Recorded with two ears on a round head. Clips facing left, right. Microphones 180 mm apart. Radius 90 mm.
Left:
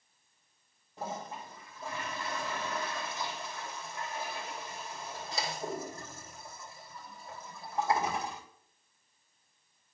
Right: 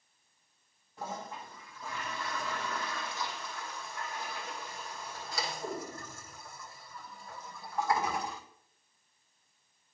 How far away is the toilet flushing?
About 3.5 m.